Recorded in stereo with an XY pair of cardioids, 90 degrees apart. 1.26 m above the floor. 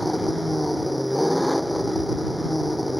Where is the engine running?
5° left.